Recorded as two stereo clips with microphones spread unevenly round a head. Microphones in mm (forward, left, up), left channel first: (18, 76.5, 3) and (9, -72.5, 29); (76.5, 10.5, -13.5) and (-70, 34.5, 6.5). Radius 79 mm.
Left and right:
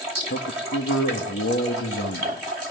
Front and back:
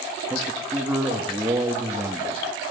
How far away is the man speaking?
About 2.5 m.